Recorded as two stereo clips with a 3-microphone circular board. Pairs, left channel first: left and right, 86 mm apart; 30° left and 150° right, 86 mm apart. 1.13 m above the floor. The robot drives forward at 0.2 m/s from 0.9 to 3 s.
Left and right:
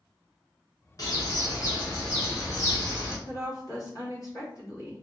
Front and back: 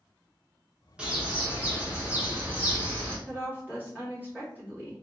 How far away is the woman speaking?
About 1.9 m.